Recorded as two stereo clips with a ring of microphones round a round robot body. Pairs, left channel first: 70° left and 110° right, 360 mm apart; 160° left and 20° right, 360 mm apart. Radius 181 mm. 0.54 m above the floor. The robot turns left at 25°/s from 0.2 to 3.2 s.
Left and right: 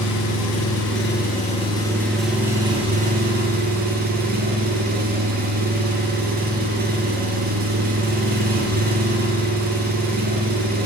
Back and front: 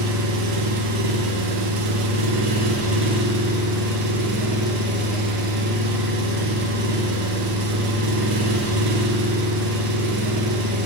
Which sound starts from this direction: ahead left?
An engine running, at 0.0 s.